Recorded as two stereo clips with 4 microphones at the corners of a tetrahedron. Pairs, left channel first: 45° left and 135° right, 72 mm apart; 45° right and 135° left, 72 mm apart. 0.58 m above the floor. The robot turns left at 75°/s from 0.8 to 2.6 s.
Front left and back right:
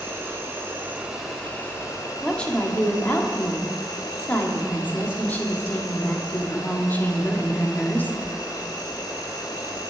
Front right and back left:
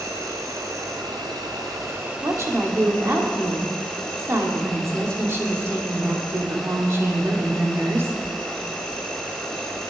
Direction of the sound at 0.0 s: 170° left.